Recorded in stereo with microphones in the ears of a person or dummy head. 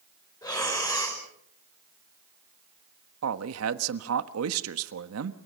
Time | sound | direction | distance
0.4 | breathing | 25° left (ahead or behind) | 5 m
3.2 | a man speaking | 85° right | 1.2 m